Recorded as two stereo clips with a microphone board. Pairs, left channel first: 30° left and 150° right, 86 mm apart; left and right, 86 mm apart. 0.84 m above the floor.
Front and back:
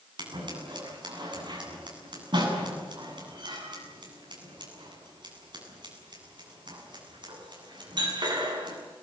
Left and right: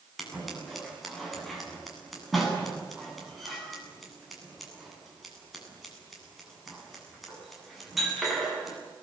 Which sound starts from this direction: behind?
Scissors, at 0.2 s.